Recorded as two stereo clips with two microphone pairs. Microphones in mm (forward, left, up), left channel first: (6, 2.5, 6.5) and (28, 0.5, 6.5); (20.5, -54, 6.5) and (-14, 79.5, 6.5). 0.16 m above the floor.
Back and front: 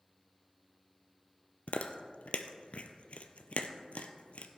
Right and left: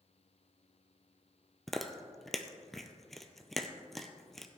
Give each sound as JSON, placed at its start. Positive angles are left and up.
{"t": 1.7, "sound": "chewing", "azimuth_deg": -165, "distance_m": 0.7}